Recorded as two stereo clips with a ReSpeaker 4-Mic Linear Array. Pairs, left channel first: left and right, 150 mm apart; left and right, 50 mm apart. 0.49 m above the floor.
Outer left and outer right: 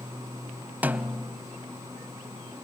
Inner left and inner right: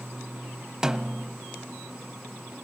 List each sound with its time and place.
0.8 s a snare drum: 10° right (ahead or behind), 0.8 m